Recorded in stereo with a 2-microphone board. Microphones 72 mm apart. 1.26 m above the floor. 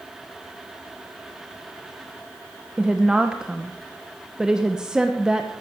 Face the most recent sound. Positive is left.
turn(degrees=-10)  # may be behind; listen again after turning